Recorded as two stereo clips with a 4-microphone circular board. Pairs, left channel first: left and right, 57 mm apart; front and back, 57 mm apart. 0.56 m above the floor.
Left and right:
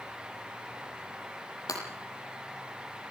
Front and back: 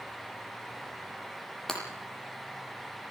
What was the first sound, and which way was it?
Breaking glass, 80° left.